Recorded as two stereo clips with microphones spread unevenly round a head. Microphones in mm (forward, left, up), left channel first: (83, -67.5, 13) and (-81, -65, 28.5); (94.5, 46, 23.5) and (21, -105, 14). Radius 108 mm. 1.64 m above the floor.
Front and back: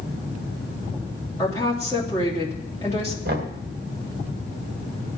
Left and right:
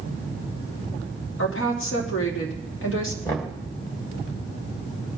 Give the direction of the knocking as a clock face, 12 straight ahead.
7 o'clock.